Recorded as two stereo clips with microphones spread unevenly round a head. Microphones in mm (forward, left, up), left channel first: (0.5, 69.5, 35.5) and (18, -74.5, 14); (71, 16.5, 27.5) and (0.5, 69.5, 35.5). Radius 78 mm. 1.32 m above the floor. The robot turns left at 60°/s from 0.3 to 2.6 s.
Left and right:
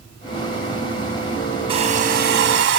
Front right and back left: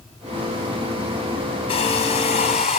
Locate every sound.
1.7 s a hair dryer: 25° right, 5.5 m; by 2.8 s 80° right, 5.5 m